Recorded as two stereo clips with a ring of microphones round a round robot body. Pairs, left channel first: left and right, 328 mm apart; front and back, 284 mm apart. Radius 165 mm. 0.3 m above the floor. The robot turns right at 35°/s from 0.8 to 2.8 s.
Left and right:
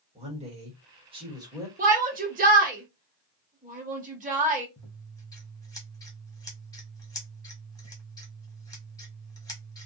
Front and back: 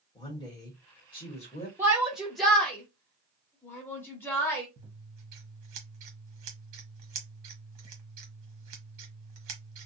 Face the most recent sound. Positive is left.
turn(degrees=170)